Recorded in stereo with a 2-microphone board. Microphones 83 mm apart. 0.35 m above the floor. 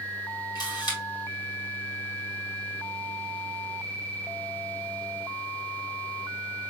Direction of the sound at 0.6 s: 55° left (ahead or behind).